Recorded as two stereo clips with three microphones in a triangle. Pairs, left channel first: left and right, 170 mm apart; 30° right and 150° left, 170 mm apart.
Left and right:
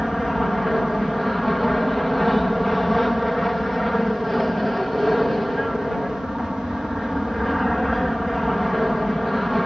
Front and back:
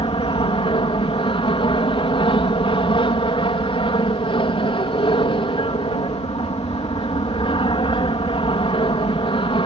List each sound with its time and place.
0.0 s an aircraft: straight ahead